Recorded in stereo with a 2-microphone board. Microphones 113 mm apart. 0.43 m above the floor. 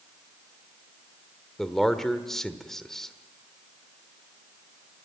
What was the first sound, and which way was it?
A man speaking, 5° left (ahead or behind).